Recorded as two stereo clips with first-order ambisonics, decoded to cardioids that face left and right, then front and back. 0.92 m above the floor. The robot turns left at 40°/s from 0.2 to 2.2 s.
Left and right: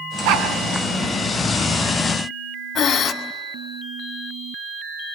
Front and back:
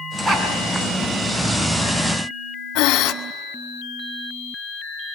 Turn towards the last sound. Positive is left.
turn(degrees=25)